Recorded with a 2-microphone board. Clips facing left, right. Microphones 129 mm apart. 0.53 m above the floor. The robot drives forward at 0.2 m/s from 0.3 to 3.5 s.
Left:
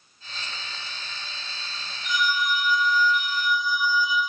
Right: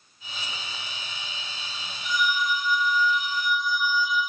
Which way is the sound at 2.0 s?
70° right (ahead or behind).